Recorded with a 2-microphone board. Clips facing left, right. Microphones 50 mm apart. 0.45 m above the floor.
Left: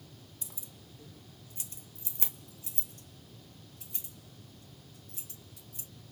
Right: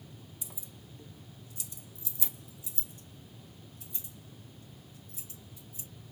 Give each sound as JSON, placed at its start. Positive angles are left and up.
{"t": 0.4, "sound": "keys jangling", "side_deg": -10, "distance_m": 1.1}